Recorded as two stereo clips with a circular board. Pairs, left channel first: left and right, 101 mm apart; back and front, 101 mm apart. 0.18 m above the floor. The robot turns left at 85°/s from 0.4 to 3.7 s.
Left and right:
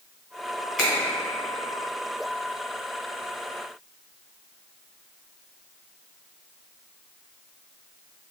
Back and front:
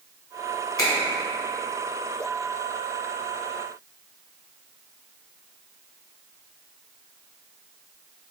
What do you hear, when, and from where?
0.8 s a finger snap: 175° left, 1.4 m; by 0.9 s 165° left, 1.4 m